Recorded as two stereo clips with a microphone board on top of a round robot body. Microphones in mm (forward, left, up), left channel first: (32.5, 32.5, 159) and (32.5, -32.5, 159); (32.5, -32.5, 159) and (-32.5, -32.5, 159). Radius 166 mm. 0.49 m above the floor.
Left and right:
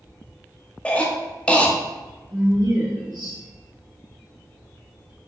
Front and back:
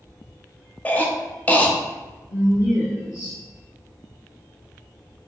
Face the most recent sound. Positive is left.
turn(degrees=-100)